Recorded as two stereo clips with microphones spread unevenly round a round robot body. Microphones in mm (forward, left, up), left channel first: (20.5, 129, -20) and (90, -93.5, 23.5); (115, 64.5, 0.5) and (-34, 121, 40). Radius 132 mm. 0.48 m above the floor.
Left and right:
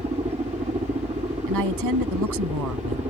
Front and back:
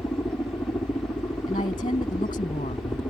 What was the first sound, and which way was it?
A helicopter, 50° right.